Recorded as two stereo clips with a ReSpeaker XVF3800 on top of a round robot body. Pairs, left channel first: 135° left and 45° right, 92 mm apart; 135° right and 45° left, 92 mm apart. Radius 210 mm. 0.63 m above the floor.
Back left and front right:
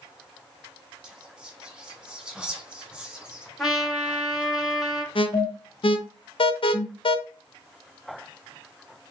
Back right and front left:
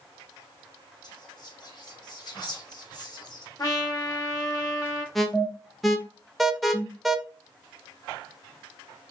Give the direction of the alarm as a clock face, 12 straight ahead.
7 o'clock.